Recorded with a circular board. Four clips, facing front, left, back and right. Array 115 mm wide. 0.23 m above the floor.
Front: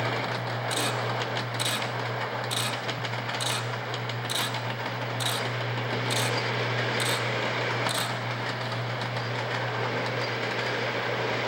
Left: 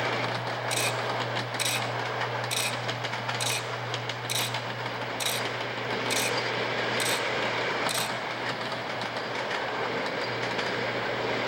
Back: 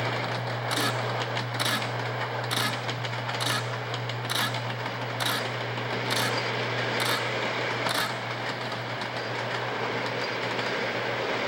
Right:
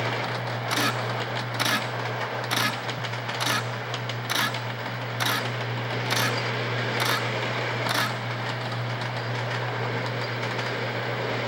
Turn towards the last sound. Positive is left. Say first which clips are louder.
# right 5 dB, back 1 dB
turn(degrees=-110)